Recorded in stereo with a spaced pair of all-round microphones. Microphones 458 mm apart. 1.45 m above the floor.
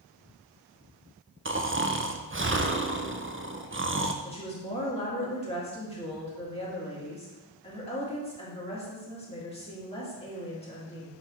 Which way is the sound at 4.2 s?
10° left (ahead or behind).